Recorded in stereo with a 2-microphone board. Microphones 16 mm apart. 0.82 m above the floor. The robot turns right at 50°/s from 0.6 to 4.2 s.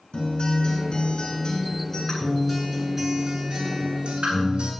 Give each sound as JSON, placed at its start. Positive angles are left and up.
{"t": 0.1, "sound": "a guitar", "azimuth_deg": 80, "distance_m": 10.0}